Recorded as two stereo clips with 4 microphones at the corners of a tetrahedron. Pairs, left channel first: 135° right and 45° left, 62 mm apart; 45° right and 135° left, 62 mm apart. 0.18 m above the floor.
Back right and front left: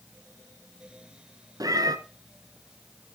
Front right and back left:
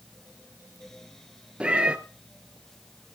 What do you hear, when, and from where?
1.6 s a cat meowing: 60° left, 1.0 m